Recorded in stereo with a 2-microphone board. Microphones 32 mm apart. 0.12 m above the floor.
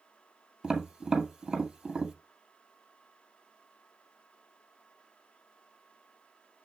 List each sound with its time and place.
0.6 s tapping: 15° right (ahead or behind), 2 m